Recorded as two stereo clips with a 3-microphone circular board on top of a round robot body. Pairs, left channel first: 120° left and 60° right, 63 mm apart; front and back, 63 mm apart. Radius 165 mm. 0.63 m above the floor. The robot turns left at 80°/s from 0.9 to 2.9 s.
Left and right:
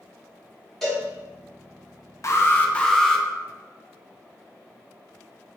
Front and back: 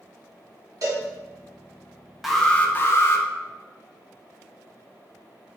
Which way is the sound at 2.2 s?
95° left.